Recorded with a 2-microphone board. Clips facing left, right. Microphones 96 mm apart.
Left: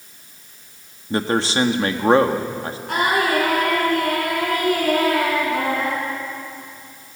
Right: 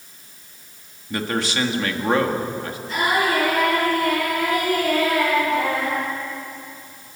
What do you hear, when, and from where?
1.1 s a man speaking: 30° left (ahead or behind), 1.8 m
2.9 s singing: 65° left (ahead or behind), 9 m